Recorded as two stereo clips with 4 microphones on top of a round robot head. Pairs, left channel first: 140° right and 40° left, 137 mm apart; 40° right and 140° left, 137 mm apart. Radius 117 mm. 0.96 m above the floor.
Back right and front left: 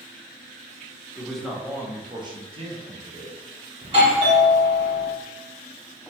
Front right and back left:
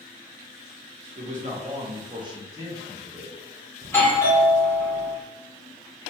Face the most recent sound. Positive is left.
turn(degrees=25)